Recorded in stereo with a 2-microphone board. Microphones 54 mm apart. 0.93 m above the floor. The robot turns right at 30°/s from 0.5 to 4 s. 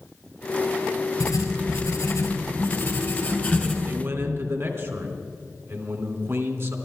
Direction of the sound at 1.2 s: 75° left.